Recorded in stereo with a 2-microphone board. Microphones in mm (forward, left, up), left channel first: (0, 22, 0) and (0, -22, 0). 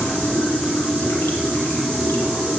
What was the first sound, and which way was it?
Running water, 70° left (ahead or behind).